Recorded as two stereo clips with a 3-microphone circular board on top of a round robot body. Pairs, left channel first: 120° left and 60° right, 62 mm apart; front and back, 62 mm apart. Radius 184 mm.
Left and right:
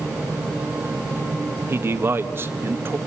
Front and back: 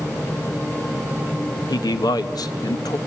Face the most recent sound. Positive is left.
turn(degrees=-5)